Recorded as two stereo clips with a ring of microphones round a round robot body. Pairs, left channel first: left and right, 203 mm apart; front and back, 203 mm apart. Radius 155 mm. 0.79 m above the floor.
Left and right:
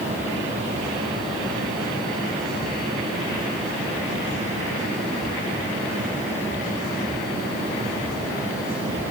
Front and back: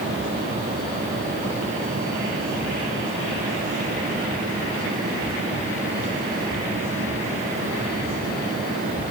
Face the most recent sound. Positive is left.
No sound to turn to.